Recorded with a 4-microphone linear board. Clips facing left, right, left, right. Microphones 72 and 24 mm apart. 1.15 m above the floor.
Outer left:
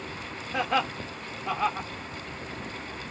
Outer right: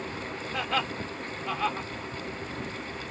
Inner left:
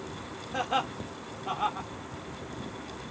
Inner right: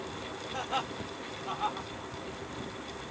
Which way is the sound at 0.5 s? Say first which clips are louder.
Outer left 4 dB, inner left 5 dB; 20° left (ahead or behind).